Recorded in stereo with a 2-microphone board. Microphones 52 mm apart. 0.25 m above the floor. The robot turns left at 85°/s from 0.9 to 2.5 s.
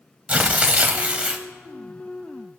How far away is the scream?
No scream in this recording.